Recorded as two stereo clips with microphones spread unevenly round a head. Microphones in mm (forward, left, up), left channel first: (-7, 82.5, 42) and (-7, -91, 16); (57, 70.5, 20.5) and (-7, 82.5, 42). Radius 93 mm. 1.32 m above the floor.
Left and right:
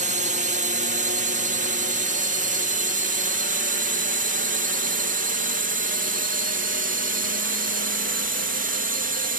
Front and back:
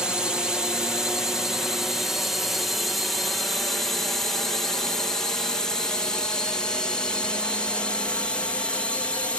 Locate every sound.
0.0 s a drone: 95° right; by 9.4 s 70° right